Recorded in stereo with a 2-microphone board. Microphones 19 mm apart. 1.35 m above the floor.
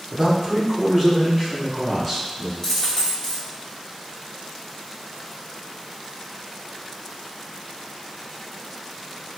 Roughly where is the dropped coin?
Left.